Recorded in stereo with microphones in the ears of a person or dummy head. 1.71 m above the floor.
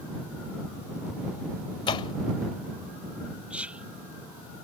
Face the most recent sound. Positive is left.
turn(degrees=-10)  # may be behind; listen again after turning